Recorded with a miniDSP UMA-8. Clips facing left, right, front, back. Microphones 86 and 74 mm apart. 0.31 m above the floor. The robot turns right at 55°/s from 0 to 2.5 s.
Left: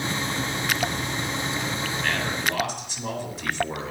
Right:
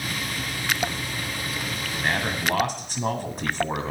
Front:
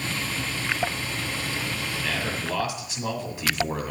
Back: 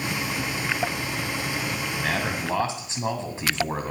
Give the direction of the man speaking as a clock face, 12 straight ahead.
5 o'clock.